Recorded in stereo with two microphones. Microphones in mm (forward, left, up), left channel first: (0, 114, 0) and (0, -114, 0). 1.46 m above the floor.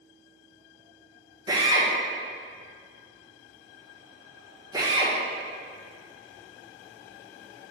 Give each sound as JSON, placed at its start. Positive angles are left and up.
{"t": 1.5, "sound": "a drill", "side_deg": -15, "distance_m": 1.8}